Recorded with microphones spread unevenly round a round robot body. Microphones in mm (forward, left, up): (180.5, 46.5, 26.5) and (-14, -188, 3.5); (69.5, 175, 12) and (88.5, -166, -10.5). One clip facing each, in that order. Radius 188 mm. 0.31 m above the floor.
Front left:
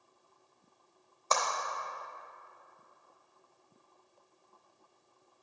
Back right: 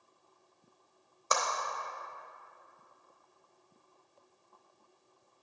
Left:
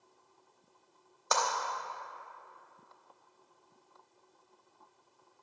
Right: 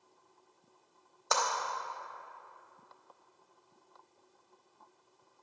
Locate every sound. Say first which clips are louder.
1.3 s a clap: even, left 1 dB; straight behind, 0.8 m